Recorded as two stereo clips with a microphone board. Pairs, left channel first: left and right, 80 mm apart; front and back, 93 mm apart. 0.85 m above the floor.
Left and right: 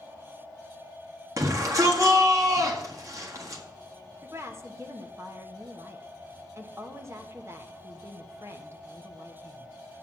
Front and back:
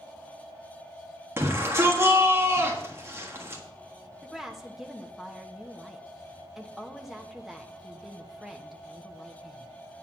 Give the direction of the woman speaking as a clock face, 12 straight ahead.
3 o'clock.